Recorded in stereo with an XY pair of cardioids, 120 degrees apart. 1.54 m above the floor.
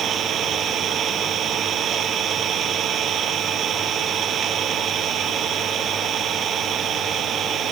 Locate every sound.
0.0 s an engine running: 50° right